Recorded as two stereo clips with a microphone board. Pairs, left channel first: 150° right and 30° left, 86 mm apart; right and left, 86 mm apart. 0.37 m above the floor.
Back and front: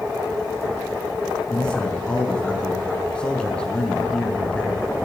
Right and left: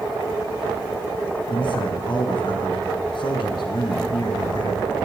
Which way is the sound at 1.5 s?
70° right.